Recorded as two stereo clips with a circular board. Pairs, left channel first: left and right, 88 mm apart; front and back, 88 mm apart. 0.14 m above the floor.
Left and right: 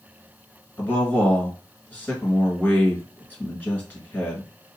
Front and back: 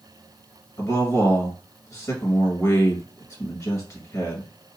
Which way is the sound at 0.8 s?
30° left.